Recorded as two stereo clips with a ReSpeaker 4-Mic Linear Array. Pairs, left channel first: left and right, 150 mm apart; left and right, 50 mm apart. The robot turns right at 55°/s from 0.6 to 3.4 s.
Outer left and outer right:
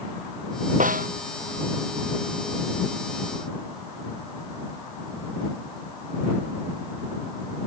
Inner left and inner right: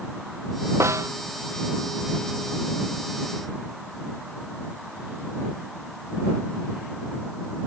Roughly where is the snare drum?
Right.